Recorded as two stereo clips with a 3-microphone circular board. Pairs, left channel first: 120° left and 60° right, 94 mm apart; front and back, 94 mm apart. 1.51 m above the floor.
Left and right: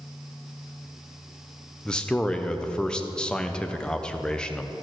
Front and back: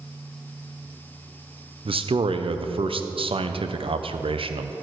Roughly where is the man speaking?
Behind.